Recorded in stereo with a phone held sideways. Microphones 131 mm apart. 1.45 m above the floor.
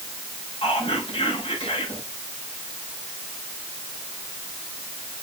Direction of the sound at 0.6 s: 45° left (ahead or behind).